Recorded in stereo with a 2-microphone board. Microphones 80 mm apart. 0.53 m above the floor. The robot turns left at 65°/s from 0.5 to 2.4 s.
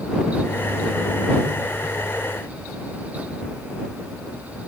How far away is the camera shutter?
I don't hear a camera shutter.